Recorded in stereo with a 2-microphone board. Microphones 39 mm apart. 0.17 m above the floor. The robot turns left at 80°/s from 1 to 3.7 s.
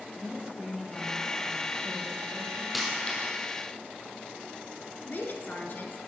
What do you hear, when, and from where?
0.1 s a woman speaking: straight ahead, 4 m; by 2.6 s 130° right, 4 m
2.7 s a dropped coin: 5° right (ahead or behind), 2.5 m; by 3.3 s 45° left (ahead or behind), 2.5 m
5.0 s a woman speaking: 50° left (ahead or behind), 2 m